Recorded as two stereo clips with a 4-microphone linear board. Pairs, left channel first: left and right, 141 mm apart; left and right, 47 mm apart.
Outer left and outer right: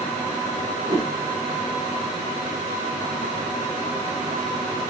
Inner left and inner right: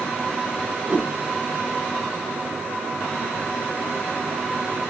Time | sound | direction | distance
0.8 | a whoosh | 30° right (ahead or behind) | 1.0 m